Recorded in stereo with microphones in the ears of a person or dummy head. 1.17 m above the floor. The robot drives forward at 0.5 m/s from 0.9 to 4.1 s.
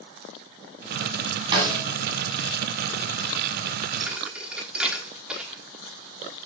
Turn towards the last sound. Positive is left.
turn(degrees=-5)  # may be behind; listen again after turning